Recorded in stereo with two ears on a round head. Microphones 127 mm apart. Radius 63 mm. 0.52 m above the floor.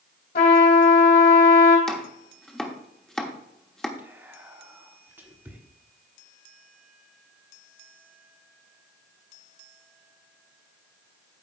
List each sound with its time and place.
0.3 s a trumpet: 65° left (ahead or behind), 2 m
1.9 s chopping: 5° left (ahead or behind), 1.0 m
4.0 s whispering: 15° right (ahead or behind), 1.3 m